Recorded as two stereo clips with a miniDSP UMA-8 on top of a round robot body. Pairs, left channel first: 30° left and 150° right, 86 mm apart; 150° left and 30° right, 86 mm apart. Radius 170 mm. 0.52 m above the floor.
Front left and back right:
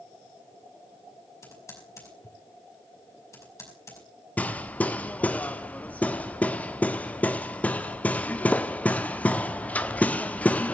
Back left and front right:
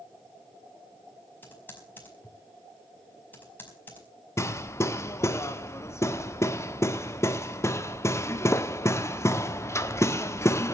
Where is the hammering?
100° left, 1.6 m.